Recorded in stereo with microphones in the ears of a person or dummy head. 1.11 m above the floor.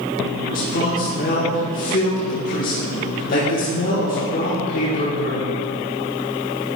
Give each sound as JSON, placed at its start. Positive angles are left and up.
{"t": 0.5, "sound": "a man speaking", "side_deg": 45, "distance_m": 1.3}